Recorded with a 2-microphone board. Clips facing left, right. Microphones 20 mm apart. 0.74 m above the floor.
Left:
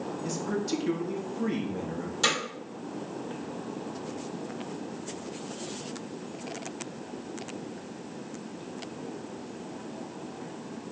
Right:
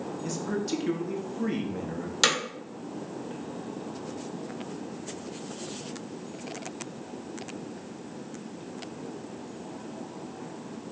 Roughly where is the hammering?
Right.